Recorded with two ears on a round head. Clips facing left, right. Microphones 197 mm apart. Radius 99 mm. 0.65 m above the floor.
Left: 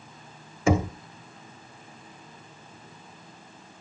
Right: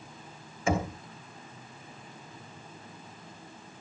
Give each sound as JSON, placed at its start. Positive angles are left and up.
{"t": 0.7, "sound": "knocking", "side_deg": 60, "distance_m": 1.2}